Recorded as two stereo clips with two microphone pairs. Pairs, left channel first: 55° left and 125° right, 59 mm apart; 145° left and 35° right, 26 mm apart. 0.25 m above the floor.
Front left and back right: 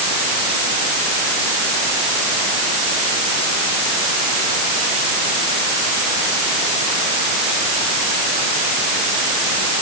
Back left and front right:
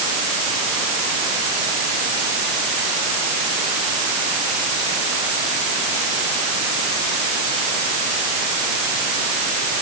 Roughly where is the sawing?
No sawing in this recording.